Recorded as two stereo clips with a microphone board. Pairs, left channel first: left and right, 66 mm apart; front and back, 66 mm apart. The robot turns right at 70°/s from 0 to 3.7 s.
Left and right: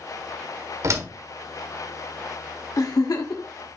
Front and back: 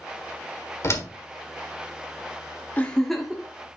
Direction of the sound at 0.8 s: 50° right.